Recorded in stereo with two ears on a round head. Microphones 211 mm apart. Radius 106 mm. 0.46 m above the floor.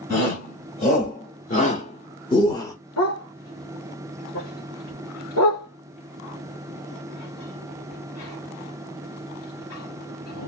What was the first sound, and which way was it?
A shout, 35° left (ahead or behind).